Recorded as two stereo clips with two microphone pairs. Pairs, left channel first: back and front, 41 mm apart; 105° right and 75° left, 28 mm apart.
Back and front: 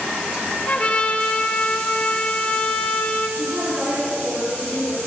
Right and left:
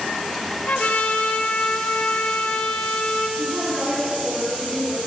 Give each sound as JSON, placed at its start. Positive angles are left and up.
{"t": 0.7, "sound": "a trumpet", "azimuth_deg": -125, "distance_m": 6.0}
{"t": 3.4, "sound": "a woman speaking", "azimuth_deg": 25, "distance_m": 9.5}